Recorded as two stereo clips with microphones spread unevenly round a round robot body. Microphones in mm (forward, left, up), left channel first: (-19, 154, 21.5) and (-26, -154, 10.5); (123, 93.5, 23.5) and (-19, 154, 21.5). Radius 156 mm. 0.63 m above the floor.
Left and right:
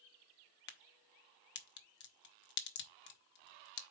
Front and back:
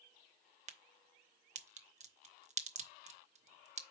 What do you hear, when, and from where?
0.7 s a crack: 135° left, 0.9 m